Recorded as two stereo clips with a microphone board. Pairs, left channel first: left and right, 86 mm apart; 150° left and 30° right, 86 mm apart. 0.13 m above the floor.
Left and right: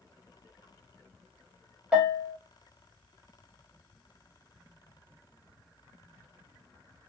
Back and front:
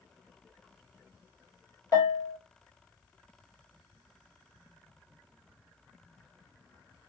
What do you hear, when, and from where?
1.9 s a bell: 175° right, 1.1 m